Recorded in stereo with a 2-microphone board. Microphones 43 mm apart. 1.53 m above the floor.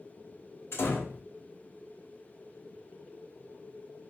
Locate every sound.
0.7 s a door slam: 70° left (ahead or behind), 1.2 m